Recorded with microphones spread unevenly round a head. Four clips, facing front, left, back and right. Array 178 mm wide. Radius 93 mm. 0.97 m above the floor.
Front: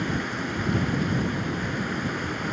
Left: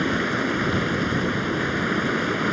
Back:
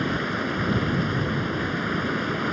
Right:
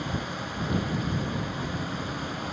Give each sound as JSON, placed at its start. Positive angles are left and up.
{"t": 0.0, "sound": "running water", "azimuth_deg": 100}